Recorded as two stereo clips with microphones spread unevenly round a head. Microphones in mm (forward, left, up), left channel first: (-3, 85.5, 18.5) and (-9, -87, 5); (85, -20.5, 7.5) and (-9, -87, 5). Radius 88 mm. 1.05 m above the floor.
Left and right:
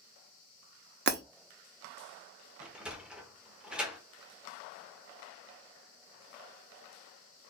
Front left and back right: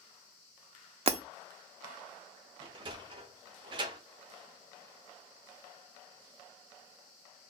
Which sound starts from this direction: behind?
A sliding door, at 2.6 s.